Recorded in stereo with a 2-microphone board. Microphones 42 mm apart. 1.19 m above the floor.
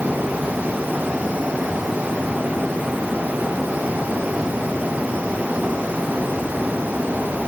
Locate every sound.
Only background noise.